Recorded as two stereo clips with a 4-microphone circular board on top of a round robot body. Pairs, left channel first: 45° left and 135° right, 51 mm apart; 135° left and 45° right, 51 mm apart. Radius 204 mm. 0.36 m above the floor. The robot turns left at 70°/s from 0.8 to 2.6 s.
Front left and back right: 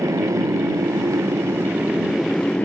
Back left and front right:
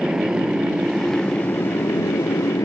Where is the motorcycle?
120° right; by 2.6 s 110° left.